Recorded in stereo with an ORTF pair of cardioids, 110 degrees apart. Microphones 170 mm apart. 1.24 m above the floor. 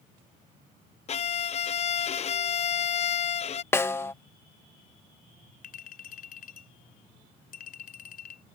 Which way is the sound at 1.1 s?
40° left.